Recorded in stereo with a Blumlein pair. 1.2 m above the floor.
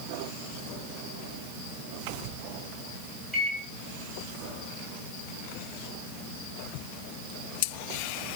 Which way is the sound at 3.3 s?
5° left.